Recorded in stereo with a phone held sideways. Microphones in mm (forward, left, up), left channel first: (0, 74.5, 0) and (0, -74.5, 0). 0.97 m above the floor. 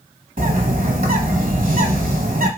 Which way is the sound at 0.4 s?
65° right (ahead or behind).